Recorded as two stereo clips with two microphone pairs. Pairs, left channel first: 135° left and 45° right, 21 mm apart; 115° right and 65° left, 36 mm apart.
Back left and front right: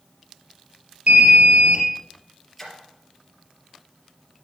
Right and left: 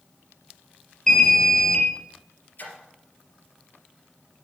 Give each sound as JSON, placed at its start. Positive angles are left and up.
{"t": 1.1, "sound": "an alarm", "azimuth_deg": -45, "distance_m": 3.0}
{"t": 2.6, "sound": "a splash", "azimuth_deg": -140, "distance_m": 3.5}